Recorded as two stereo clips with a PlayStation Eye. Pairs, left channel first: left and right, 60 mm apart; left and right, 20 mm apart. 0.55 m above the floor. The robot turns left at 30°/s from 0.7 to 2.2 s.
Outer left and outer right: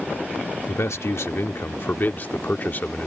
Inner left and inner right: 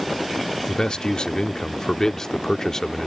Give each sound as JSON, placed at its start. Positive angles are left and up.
{"t": 0.7, "sound": "a man speaking", "azimuth_deg": 90}